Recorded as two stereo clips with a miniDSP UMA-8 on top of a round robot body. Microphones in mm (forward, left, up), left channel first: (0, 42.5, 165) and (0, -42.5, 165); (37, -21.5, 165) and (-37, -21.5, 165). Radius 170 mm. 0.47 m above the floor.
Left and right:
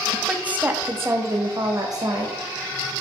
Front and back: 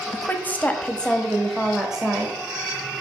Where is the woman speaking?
15° right, 1.1 m; by 2.4 s 105° right, 1.5 m.